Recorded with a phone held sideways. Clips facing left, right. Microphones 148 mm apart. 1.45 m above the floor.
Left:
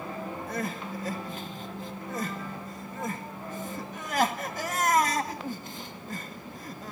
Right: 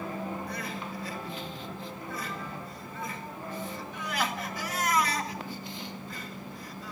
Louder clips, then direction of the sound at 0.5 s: Left 3 dB; 45° left (ahead or behind).